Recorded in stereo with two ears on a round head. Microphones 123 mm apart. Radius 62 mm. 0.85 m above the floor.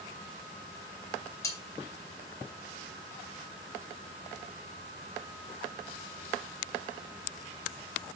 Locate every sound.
1.4 s cutlery clinking: 20° left (ahead or behind), 4 m